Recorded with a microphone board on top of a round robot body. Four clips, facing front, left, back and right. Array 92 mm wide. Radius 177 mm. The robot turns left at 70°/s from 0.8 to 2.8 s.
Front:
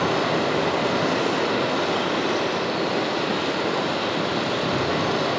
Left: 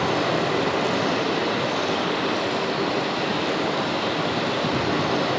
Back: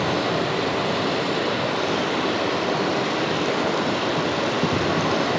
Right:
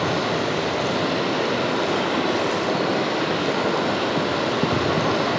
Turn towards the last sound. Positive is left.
turn(degrees=-110)